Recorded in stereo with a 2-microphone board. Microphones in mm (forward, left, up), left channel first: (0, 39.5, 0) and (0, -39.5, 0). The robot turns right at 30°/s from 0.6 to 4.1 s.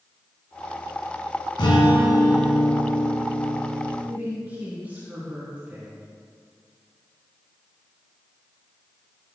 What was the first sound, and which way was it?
A guitar, 100° left.